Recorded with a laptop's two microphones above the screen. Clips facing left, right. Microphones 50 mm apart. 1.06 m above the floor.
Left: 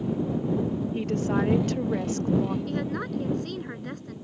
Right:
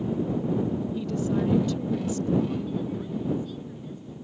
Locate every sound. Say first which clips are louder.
0.9 s a woman speaking: left 3 dB; 55° left (ahead or behind)
2.7 s a woman speaking: left 1 dB; 70° left (ahead or behind)